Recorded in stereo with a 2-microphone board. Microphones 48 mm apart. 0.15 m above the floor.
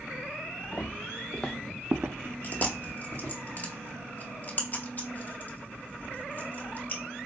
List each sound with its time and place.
0.7 s footsteps: 40° left (ahead or behind), 1.3 m; by 3.3 s 80° right, 1.8 m
2.4 s chewing: 40° left (ahead or behind), 1.1 m